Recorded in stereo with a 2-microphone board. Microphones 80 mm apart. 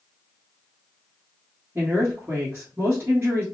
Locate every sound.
1.8 s a woman speaking: 30° right (ahead or behind), 1.4 m